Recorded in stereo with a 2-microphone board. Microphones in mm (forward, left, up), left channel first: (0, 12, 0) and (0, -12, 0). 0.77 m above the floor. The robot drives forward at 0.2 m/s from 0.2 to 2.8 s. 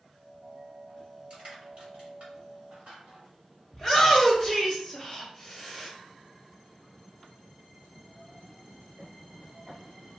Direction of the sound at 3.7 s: 5° right (ahead or behind).